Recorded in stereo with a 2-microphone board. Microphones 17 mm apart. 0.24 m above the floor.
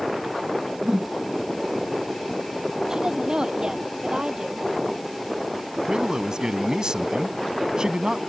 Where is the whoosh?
45° right (ahead or behind).